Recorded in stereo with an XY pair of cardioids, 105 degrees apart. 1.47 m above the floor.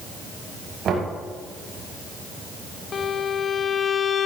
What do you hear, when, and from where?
0.8 s knocking: 55° right, 6 m
2.9 s a violin: 45° left, 0.7 m